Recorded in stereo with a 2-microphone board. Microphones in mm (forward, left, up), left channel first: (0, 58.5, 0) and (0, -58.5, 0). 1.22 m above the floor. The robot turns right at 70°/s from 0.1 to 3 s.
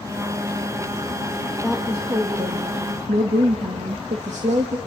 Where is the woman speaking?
175° left, 2 m; by 4.8 s 85° right, 2 m.